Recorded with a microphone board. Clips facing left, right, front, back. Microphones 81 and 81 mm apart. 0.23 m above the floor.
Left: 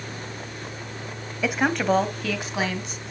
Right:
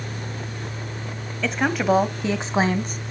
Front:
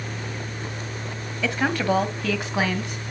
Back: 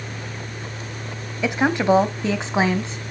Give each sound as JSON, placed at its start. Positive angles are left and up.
{"t": 1.4, "sound": "a woman speaking", "azimuth_deg": 145, "distance_m": 1.1}